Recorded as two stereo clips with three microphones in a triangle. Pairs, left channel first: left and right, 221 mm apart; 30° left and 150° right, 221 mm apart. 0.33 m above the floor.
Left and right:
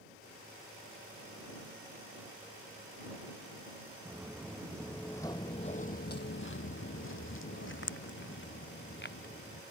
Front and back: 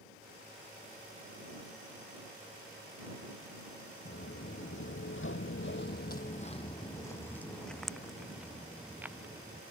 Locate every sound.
4.0 s footsteps: 10° right; by 9.6 s 130° left